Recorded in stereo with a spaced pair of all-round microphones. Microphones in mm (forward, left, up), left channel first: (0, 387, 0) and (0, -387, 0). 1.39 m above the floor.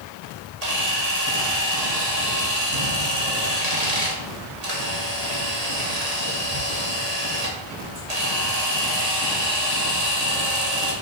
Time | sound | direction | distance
0.6 | a camera shutter | 50° right (ahead or behind) | 2.5 m